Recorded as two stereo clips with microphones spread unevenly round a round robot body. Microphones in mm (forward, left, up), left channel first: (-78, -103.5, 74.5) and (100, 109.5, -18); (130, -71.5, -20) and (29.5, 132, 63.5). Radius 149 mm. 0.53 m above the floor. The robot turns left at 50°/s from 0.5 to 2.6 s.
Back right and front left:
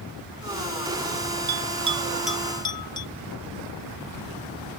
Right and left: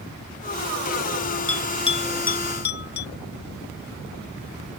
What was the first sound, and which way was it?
A bell, 10° left.